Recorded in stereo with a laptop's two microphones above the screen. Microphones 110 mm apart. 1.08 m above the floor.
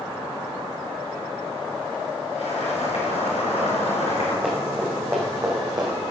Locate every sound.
2.4 s boiling: 75° left (ahead or behind), 4.5 m
4.4 s running footsteps: 10° right (ahead or behind), 2.5 m; by 5.9 s 35° right (ahead or behind), 2.5 m